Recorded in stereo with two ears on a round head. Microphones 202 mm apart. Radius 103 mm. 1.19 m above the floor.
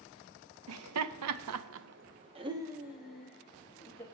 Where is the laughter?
75° right (ahead or behind), 0.8 m; by 4.0 s 10° left (ahead or behind), 1.3 m.